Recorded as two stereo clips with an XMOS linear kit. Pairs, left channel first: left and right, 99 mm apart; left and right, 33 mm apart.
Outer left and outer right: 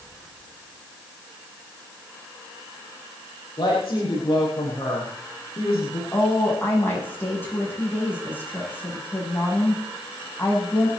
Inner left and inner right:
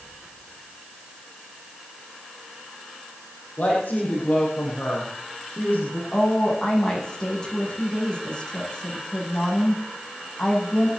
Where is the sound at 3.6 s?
50° left (ahead or behind), 5.5 m.